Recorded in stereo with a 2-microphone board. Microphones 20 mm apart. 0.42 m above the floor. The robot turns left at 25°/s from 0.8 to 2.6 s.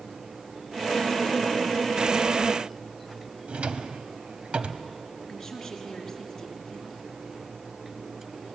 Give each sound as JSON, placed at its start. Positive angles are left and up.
{"t": 3.5, "sound": "a drawer", "side_deg": -75, "distance_m": 1.1}
{"t": 5.3, "sound": "a woman speaking", "side_deg": 25, "distance_m": 5.0}